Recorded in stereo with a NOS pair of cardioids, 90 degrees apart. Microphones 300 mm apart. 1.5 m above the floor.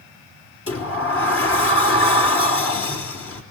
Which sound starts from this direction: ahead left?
A sliding door, at 0.7 s.